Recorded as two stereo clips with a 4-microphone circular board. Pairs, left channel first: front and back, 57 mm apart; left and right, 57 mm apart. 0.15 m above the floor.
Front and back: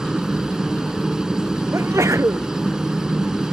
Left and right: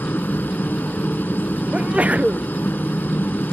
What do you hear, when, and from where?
0.0 s a helicopter: 110° left
1.7 s a sneeze: 155° right